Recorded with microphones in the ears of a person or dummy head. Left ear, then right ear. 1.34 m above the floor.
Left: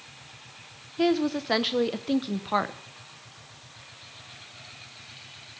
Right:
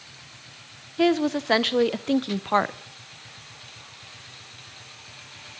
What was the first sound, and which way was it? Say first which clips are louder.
A woman speaking: right 3 dB; 15° right (ahead or behind).